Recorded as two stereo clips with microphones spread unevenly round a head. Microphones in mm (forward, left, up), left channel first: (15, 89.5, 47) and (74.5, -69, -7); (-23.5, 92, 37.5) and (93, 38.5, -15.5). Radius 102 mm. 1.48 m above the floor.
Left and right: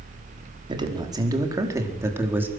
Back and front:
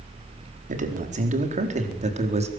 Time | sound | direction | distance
0.7 | a man speaking | 5° right | 4.5 m